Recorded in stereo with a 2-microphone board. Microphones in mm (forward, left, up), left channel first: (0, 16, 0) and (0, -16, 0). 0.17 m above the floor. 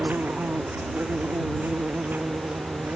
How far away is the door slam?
I don't hear a door slam.